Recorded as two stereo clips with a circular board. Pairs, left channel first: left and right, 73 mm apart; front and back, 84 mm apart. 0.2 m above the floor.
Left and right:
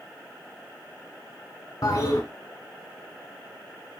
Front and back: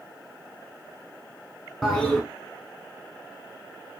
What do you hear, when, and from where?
1.8 s a toilet flushing: 80° left, 0.8 m